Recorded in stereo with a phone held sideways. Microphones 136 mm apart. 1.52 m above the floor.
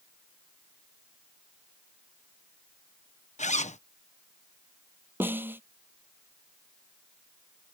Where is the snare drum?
15° right (ahead or behind).